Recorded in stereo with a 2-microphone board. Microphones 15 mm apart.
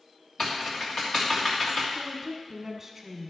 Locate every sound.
0.4 s typing on a keyboard: 80° left, 2.5 m
1.9 s a woman speaking: 20° right (ahead or behind), 1.1 m